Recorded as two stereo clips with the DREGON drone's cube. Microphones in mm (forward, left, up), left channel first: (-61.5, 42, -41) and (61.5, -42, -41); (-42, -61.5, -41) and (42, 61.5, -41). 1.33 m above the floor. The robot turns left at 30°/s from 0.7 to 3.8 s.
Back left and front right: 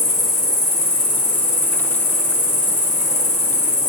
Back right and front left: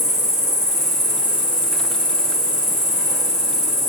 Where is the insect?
95° left, 1.6 m; by 3.9 s 5° left, 1.6 m.